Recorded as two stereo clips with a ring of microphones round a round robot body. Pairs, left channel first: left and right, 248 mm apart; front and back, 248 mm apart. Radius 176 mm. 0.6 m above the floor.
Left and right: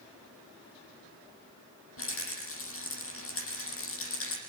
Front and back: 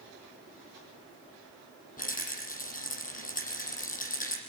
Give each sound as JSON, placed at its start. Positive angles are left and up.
{"t": 2.0, "sound": "a rattle", "azimuth_deg": 55, "distance_m": 7.0}